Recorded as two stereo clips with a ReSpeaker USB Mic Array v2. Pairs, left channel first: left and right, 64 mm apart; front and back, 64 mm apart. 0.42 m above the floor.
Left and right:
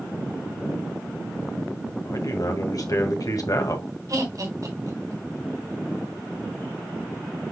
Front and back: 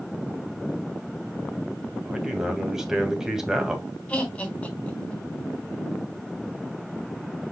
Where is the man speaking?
100° left, 2 m.